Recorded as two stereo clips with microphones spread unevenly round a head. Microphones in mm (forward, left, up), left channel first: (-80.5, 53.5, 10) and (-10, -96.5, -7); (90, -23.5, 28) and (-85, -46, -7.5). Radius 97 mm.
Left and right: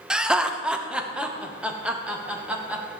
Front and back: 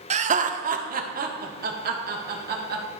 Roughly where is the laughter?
Behind right.